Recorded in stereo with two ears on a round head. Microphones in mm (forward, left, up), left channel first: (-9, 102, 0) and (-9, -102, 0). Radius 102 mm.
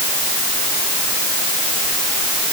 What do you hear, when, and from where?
Only background noise.